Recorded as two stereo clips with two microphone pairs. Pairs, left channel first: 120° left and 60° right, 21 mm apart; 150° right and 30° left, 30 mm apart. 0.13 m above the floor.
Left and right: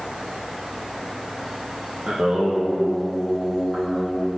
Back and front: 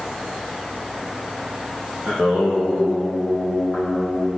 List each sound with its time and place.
2.1 s singing: 20° right, 2 m